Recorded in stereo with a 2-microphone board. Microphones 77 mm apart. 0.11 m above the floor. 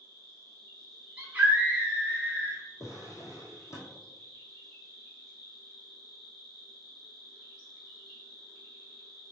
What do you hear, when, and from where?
0.0 s an insect: 5° left (ahead or behind), 1.9 m
1.2 s a scream: 20° right (ahead or behind), 1.3 m
2.8 s a drawer: 40° left (ahead or behind), 1.4 m